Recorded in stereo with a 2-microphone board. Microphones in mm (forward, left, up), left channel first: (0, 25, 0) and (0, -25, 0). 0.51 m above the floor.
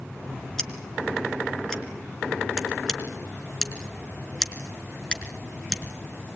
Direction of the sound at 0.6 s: 10° left (ahead or behind).